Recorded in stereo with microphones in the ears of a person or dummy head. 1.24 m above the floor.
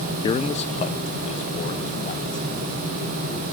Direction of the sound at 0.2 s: 25° left (ahead or behind).